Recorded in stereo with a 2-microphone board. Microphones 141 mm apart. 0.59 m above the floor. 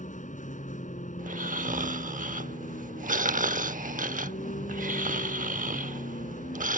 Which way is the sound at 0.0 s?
70° left (ahead or behind).